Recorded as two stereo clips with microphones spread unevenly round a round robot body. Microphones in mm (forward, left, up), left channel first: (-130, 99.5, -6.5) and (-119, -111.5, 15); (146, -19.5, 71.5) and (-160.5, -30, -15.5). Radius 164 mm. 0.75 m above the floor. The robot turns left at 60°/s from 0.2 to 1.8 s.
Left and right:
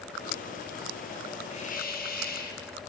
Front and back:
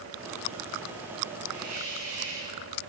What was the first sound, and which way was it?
A hiss, 155° left.